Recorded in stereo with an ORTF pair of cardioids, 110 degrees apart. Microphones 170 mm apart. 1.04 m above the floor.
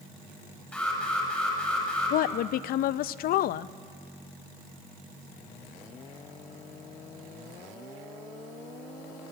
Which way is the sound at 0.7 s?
10° left.